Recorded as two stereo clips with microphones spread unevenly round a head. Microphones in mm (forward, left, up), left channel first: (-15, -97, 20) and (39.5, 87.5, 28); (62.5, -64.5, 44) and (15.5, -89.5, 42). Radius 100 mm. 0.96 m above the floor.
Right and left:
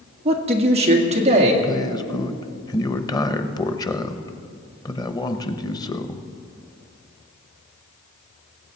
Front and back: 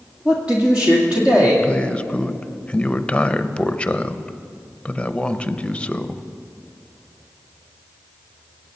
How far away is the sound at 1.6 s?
About 0.8 m.